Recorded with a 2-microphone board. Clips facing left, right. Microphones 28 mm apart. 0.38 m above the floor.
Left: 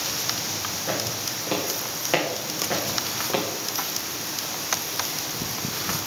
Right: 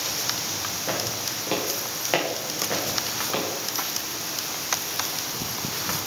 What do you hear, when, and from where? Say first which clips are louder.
0.9 s footsteps: even; 15° right (ahead or behind), 3 m; by 3.5 s 15° left (ahead or behind), 2 m